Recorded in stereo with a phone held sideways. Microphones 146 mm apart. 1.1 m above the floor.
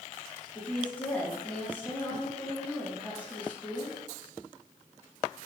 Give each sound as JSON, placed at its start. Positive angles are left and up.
{"t": 0.6, "sound": "a woman speaking", "side_deg": 10, "distance_m": 3.0}